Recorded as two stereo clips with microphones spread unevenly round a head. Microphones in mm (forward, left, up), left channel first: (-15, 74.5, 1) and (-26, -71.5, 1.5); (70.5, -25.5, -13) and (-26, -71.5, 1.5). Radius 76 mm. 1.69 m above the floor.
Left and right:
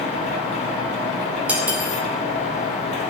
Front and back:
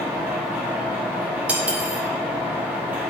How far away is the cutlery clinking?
About 0.8 m.